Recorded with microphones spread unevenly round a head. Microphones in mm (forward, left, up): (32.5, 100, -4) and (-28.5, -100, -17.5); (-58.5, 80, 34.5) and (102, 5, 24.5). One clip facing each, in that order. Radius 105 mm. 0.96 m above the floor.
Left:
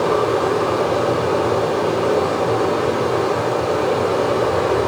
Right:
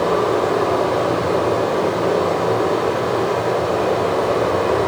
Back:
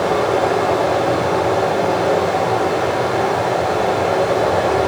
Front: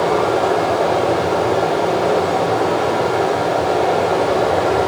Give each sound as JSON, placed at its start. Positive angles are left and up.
{"t": 0.0, "sound": "running water", "azimuth_deg": 20, "distance_m": 2.5}